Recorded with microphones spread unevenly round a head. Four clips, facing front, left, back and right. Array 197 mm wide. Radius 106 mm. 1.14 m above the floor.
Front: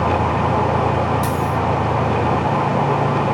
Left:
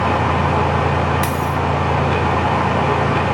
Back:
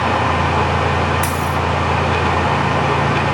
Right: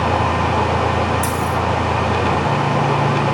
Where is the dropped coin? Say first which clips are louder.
Even, even; 140° left, 2.5 m.